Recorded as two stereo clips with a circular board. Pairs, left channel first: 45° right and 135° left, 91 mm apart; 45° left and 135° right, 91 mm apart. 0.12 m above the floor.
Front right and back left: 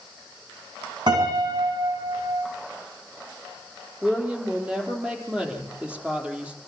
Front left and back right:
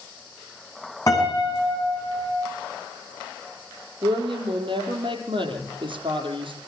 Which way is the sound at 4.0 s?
150° right.